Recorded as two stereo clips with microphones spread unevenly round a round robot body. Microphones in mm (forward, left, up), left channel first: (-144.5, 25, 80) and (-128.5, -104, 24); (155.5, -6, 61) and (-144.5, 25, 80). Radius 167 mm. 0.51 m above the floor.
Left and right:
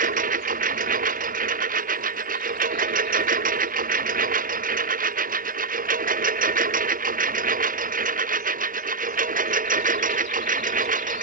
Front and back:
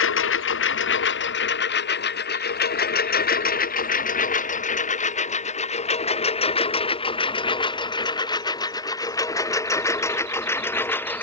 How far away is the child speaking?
No child speaking in this recording.